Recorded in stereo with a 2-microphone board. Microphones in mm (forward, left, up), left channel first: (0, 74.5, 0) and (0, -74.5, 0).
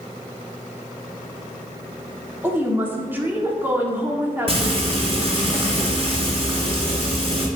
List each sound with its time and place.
2.4 s a woman speaking: 15° right (ahead or behind), 1.1 m
4.5 s frying: 40° right (ahead or behind), 1.7 m